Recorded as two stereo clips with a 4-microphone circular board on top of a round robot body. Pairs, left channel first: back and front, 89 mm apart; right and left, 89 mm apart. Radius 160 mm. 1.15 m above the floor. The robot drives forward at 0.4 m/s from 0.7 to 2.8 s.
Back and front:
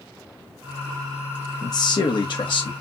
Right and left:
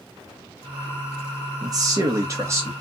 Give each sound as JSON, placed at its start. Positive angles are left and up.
{"t": 1.6, "sound": "a man speaking", "azimuth_deg": 135, "distance_m": 0.9}